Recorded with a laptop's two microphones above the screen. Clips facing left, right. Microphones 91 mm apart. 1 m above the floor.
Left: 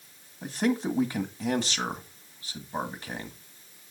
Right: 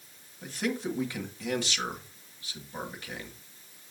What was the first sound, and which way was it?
A man speaking, 35° left (ahead or behind).